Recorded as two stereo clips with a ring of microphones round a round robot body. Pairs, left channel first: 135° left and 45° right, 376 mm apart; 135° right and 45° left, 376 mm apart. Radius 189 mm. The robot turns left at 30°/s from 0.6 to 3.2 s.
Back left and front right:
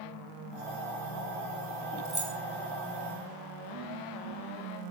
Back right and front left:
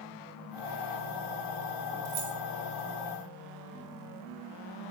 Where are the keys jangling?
45° left, 4 m; by 2.3 s 40° left, 4 m.